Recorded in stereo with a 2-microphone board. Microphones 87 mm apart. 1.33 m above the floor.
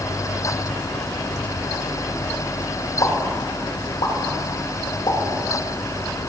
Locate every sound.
3.0 s a pop: 75° left (ahead or behind), 2 m